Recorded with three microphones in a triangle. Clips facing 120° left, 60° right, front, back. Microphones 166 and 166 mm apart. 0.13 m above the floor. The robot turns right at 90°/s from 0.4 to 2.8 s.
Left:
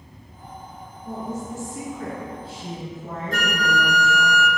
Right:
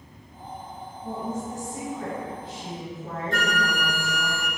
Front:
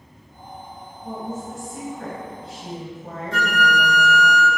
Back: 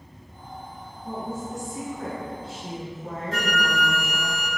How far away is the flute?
About 1.3 m.